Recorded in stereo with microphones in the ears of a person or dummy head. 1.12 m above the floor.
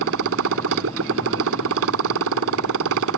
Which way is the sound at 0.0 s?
80° right.